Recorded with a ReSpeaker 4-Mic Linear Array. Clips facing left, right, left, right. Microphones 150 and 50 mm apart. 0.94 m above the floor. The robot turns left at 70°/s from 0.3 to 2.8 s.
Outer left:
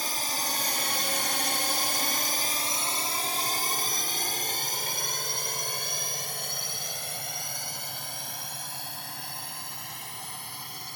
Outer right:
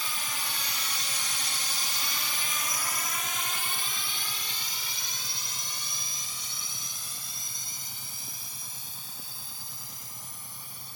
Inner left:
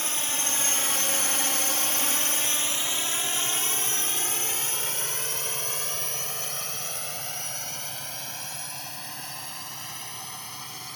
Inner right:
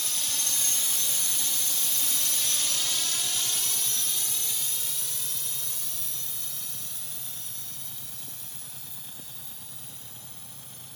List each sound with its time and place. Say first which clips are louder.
0.0 s a drone: outer left 5 dB, inner left 4 dB; 45° left (ahead or behind); by 11.0 s 70° left (ahead or behind)